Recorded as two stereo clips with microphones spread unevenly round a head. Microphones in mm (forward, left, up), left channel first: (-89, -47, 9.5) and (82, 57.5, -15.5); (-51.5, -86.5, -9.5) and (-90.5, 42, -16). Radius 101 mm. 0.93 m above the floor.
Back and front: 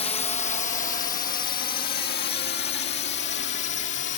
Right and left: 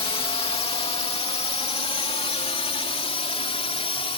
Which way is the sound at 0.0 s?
95° right.